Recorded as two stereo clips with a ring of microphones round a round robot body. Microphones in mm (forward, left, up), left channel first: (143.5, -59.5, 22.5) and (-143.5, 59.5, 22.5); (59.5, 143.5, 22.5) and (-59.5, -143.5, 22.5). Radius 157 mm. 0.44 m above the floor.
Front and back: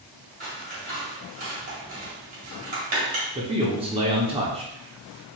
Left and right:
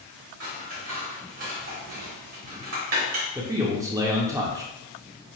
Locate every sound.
0.4 s scissors: 140° right, 1.9 m
3.4 s a man speaking: 170° right, 0.7 m